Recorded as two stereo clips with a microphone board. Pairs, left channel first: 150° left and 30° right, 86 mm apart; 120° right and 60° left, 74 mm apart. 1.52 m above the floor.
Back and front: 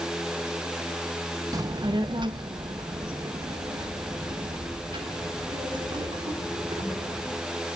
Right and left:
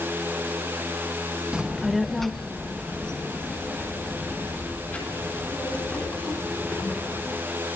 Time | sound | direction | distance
1.5 | a child speaking | 10° right | 0.6 m